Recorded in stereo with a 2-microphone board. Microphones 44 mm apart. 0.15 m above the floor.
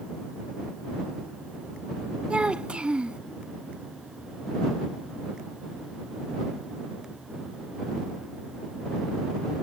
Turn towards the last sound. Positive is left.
turn(degrees=-25)  # may be behind; listen again after turning